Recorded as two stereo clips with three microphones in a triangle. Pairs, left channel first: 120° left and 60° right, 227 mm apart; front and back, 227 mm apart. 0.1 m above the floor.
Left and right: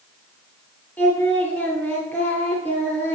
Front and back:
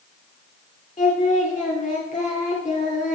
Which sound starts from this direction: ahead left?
Singing, at 1.0 s.